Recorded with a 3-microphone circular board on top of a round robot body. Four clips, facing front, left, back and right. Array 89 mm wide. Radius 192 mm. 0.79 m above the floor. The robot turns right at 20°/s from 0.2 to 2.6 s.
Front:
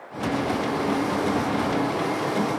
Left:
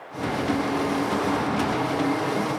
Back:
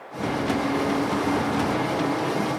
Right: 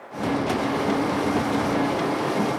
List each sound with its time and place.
Only background noise.